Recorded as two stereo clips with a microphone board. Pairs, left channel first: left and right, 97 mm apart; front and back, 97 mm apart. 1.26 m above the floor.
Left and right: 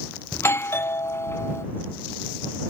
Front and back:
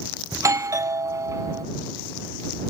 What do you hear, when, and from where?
0.3 s a doorbell: 140° left